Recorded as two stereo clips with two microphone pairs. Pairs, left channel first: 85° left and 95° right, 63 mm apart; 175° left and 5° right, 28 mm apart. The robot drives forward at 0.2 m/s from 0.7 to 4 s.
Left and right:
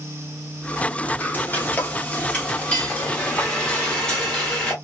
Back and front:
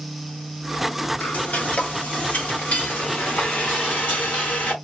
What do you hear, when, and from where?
1.2 s frying: 145° left, 0.7 m; by 4.7 s 160° left, 1.2 m